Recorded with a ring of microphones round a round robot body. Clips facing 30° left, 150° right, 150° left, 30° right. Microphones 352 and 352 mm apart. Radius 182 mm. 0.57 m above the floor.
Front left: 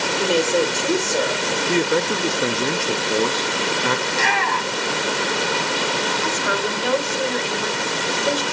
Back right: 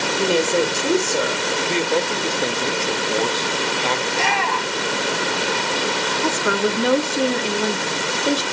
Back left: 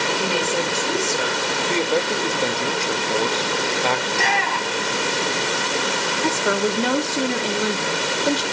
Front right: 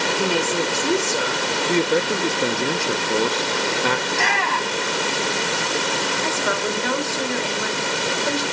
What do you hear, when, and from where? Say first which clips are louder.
0.2 s a woman speaking: even, front right 3 dB; 70° right, 2.5 m
1.6 s a man speaking: front left 3 dB, front right 2 dB; straight ahead, 0.6 m
4.1 s a shout: back right 1 dB, even; 35° right, 2.5 m
6.2 s a woman speaking: back right 4 dB, back left 7 dB; 175° right, 1.3 m